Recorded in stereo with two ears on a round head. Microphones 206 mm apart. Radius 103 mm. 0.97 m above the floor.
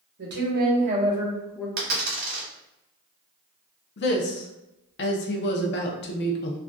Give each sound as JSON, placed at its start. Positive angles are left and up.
{"t": 0.2, "sound": "a woman speaking", "side_deg": -50, "distance_m": 0.9}
{"t": 1.8, "sound": "a dropped coin", "side_deg": -45, "distance_m": 1.0}
{"t": 4.0, "sound": "a woman speaking", "side_deg": 50, "distance_m": 0.5}